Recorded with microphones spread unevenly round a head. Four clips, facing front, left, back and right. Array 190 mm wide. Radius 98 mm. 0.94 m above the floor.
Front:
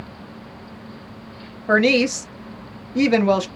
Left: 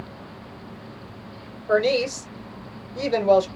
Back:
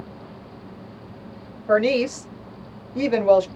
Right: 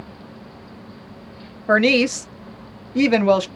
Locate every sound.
1.7 s a woman speaking: 55° right, 1.1 m